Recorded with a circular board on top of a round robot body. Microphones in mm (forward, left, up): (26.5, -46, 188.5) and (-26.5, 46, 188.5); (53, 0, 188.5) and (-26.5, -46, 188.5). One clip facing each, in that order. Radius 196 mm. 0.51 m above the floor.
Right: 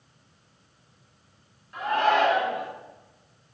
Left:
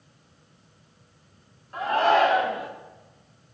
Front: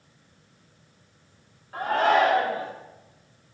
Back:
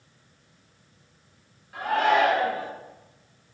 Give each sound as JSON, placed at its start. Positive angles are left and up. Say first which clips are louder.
{"t": 1.7, "sound": "a shout", "louder": "left 2 dB, front 1 dB", "azimuth_deg": 75, "distance_m": 2.0}